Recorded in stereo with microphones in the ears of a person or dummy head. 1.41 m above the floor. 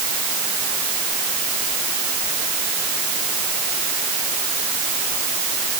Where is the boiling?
I don't hear boiling.